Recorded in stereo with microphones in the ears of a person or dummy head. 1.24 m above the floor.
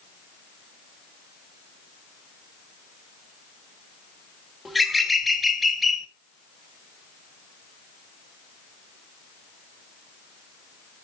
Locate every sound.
4.7 s a bird: centre (ahead or behind), 1.6 m